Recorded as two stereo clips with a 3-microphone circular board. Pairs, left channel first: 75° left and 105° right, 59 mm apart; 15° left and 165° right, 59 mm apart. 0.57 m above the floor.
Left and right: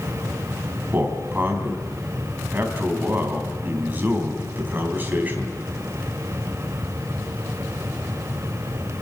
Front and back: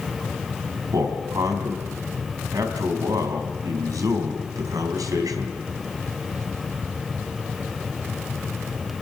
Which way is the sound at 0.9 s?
165° right.